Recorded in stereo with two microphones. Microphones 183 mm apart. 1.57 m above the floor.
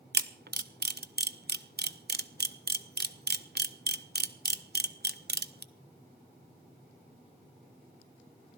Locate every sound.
0.1 s a camera shutter: 65° right (ahead or behind), 0.6 m